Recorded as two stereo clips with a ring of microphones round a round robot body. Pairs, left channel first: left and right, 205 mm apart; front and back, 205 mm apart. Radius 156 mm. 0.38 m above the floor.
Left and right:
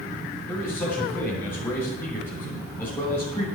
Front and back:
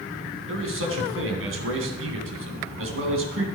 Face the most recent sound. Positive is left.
turn(degrees=170)